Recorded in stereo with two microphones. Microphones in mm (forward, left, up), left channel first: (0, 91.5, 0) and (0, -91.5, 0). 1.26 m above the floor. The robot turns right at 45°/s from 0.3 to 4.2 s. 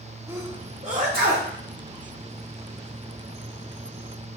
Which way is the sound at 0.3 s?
15° right (ahead or behind).